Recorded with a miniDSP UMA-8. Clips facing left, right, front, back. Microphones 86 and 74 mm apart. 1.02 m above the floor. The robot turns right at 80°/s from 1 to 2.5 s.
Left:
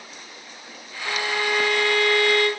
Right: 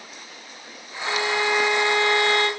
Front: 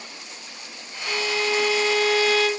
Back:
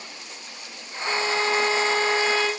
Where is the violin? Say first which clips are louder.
Right 2 dB, back 1 dB; 130° left, 0.8 m; by 2.5 s 115° right, 0.8 m.